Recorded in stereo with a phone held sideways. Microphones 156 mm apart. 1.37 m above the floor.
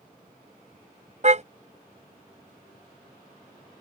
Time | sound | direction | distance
1.2 | a car horn | 50° right (ahead or behind) | ?